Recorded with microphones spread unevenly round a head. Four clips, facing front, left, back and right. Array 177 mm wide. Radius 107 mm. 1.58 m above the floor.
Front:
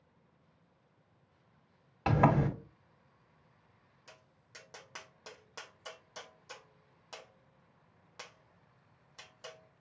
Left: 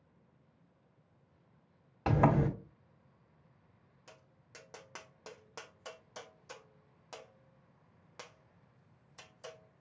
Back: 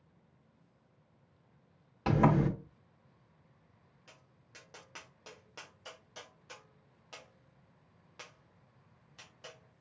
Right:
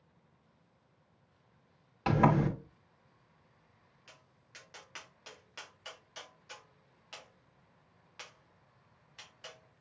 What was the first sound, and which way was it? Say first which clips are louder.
A sliding door: right 1 dB, even; 20° right.